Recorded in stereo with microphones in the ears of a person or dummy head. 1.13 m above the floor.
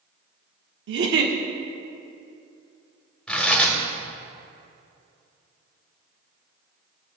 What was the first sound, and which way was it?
A giggle, 60° right (ahead or behind).